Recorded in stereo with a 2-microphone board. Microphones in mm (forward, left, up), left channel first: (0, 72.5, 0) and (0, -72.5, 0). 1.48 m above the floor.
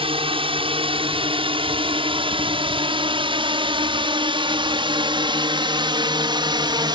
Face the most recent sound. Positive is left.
turn(degrees=-30)  # may be behind; listen again after turning